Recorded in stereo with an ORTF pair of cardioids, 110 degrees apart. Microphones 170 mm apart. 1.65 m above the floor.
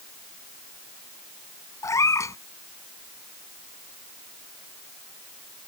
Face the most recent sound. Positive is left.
turn(degrees=15)